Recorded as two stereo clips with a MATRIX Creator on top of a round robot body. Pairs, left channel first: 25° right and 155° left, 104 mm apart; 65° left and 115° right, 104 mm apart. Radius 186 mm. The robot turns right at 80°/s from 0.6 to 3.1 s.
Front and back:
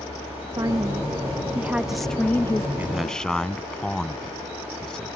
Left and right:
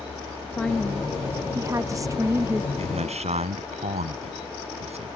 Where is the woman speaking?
140° left; by 2.7 s 55° right.